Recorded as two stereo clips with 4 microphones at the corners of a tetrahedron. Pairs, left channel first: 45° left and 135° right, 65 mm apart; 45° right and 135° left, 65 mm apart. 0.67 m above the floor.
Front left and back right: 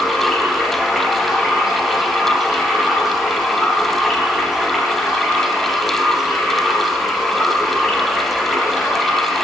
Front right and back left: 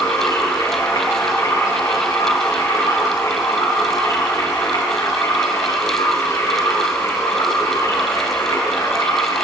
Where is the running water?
45° right, 5.5 m.